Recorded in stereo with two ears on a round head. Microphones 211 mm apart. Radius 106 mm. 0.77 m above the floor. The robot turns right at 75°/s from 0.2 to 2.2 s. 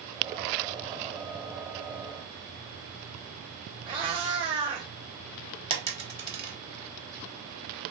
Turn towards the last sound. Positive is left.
turn(degrees=-20)  # may be behind; listen again after turning